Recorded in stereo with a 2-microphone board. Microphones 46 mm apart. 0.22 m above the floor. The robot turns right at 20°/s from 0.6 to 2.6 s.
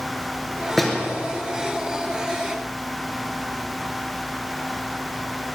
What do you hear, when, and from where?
0.8 s a door slam: 5° left (ahead or behind), 3 m; by 1.1 s centre (ahead or behind), 3 m